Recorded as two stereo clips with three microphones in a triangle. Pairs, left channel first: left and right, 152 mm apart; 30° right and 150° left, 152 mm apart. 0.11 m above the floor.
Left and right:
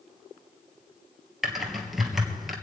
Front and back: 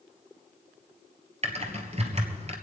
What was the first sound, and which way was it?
Typing on a keyboard, straight behind.